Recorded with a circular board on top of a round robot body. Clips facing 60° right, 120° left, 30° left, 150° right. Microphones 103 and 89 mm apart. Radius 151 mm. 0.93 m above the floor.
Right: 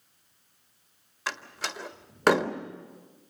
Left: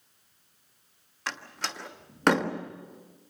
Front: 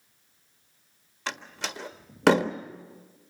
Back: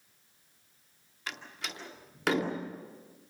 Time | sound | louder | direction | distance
1.3 | a door slam | right 1 dB, front 6 dB | 25° left | 1.5 m